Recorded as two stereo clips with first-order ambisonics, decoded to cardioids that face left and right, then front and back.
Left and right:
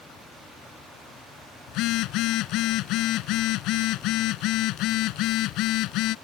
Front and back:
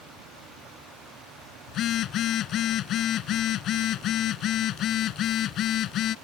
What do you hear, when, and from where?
1.7 s a phone buzzing: 55° left